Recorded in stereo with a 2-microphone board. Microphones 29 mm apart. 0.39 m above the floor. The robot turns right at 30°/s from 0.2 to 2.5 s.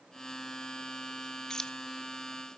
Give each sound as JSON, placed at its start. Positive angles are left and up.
{"t": 1.5, "sound": "keys jangling", "side_deg": 20, "distance_m": 0.5}